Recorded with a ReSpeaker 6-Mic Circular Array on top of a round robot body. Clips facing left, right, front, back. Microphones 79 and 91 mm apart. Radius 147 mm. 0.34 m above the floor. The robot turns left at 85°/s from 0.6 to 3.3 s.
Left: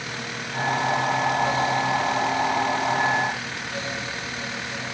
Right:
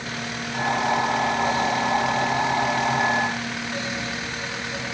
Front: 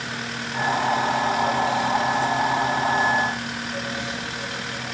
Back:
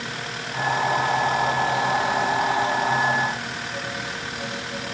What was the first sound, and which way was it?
Only background noise.